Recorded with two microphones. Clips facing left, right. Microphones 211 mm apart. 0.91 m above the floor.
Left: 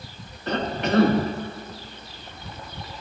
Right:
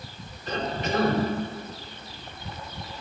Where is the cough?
70° left (ahead or behind), 1.4 m.